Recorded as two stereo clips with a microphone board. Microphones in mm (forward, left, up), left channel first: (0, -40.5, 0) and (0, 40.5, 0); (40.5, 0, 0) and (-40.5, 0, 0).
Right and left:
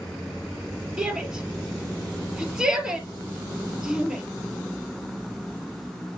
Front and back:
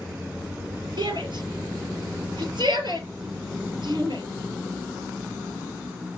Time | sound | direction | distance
1.0 | a shout | 170° left | 4.5 m